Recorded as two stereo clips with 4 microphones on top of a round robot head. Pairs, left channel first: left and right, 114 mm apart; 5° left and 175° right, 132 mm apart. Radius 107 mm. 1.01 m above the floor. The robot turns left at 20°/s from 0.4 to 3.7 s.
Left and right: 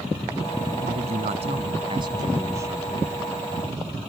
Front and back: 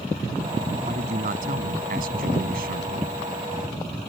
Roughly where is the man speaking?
Behind right.